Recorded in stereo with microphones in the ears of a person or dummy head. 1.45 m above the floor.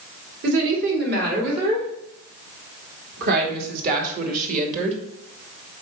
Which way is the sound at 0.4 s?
70° right (ahead or behind).